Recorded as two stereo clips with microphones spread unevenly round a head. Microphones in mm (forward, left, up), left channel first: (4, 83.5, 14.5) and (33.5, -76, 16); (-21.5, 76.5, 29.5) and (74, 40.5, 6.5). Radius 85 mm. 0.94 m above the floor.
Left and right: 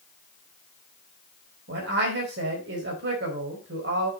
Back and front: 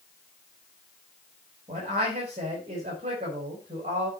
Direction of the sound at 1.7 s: 65° right.